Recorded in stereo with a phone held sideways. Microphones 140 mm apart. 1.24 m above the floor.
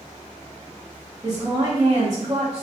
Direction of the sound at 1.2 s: 25° right (ahead or behind).